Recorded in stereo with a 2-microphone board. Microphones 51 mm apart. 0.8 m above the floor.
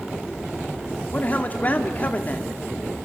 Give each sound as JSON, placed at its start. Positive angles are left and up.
{"t": 1.1, "sound": "a man speaking", "side_deg": 35, "distance_m": 1.6}